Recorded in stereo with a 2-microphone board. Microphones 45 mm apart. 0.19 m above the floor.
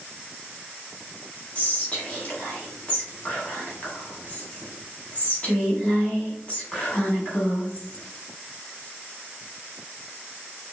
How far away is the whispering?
About 1.2 m.